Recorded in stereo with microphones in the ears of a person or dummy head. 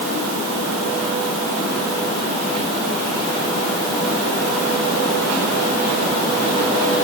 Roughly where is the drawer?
I don't hear a drawer.